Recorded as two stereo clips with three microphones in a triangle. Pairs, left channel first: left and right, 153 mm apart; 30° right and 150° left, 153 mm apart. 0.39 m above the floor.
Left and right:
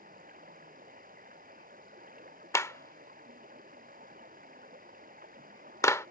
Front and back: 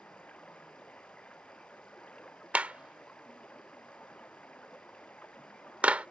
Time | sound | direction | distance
0.0 | running water | 110° right | ?
2.5 | a clap | 90° left | ?